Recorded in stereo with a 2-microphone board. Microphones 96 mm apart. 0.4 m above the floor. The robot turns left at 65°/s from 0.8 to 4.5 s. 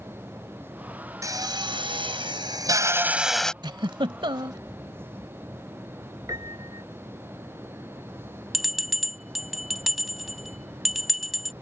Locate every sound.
1.2 s a drill: 40° right; by 3.5 s 170° left
3.6 s a giggle: 55° right (ahead or behind); by 4.6 s 50° right (ahead or behind)
6.3 s a piano: 40° right (ahead or behind)
8.5 s a bell: centre (ahead or behind)